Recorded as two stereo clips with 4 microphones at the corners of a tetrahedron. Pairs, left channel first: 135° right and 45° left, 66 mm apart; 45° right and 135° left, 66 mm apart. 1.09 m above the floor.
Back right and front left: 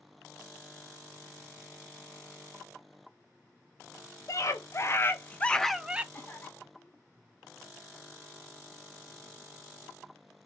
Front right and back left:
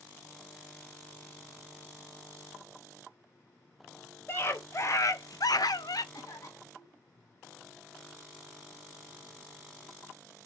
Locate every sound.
4.3 s a scream: 95° right, 1.0 m; by 6.0 s 25° right, 0.5 m
6.1 s a cough: 65° right, 1.6 m